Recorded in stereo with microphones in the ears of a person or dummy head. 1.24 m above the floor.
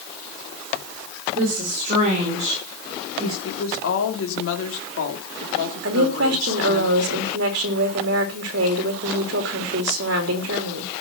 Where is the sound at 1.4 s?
45° right (ahead or behind), 4.5 m; by 3.3 s 20° right (ahead or behind), 6 m.